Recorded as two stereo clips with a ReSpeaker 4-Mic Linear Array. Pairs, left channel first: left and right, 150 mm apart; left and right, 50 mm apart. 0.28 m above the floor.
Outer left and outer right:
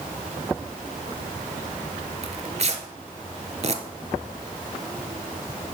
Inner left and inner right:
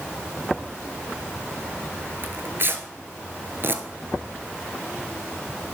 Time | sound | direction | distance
2.2 | tearing paper | 50° right (ahead or behind) | 0.8 m